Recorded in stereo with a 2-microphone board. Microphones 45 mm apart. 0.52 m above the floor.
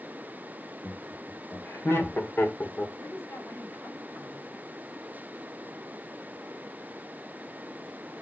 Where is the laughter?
70° left (ahead or behind), 4 m; by 2.9 s 45° left (ahead or behind), 1.9 m.